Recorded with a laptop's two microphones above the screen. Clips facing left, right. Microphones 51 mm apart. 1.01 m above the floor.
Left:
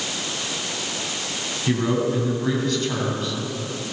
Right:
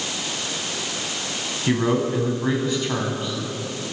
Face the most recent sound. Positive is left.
turn(degrees=-20)  # may be behind; listen again after turning